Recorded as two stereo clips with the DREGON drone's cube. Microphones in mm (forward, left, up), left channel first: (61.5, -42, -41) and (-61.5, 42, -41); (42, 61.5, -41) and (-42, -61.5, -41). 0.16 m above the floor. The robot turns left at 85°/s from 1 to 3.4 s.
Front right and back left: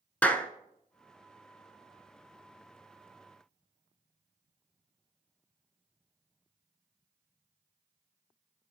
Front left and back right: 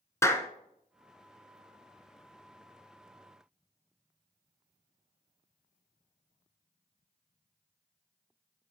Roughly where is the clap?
Ahead left.